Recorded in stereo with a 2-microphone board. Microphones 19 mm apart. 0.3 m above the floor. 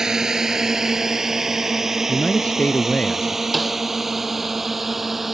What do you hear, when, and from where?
0.0 s a drone: 30° right (ahead or behind); by 5.3 s 10° right (ahead or behind)
2.1 s a man speaking: 80° left
3.5 s a snare drum: 5° right (ahead or behind)